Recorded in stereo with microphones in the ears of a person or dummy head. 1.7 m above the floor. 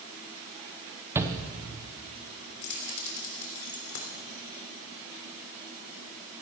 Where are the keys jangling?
65° left (ahead or behind), 3.5 m.